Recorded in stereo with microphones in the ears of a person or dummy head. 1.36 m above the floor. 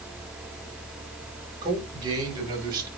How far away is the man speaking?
About 4.5 m.